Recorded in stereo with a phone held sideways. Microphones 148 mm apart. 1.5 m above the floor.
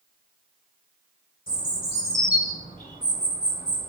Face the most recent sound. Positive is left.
turn(degrees=80)